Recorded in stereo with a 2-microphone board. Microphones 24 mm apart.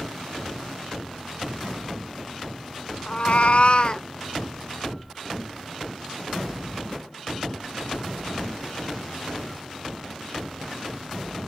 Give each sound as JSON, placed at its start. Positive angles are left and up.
{"t": 3.1, "sound": "a cat meowing", "side_deg": 40, "distance_m": 0.6}